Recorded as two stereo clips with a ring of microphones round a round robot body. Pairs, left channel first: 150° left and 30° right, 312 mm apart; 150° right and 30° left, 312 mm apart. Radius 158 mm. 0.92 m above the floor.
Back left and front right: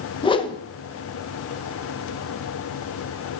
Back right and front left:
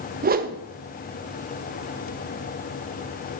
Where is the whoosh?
80° left, 0.6 m.